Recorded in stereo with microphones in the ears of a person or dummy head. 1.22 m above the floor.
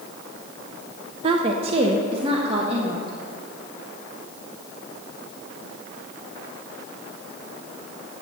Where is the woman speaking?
35° right (ahead or behind), 0.5 m; by 3.1 s 40° right (ahead or behind), 1.6 m.